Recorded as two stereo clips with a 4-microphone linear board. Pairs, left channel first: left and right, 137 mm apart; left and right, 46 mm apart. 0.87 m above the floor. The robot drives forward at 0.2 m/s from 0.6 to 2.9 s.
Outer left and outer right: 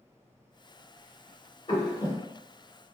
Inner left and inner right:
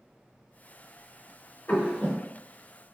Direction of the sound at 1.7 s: 45° left (ahead or behind).